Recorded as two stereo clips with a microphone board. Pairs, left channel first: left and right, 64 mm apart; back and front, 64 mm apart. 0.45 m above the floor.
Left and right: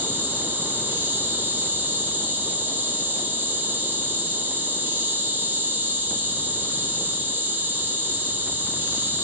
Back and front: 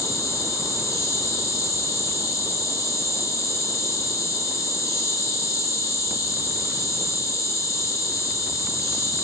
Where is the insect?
150° right, 1.3 m.